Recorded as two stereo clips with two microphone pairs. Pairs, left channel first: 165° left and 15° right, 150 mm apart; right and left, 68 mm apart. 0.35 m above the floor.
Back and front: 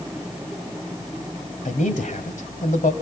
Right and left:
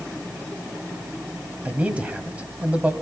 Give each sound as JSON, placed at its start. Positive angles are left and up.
{"t": 1.6, "sound": "a man speaking", "azimuth_deg": 160, "distance_m": 2.0}